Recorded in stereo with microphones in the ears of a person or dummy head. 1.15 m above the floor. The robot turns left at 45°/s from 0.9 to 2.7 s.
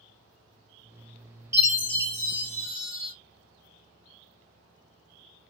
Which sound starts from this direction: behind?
A chime, at 1.5 s.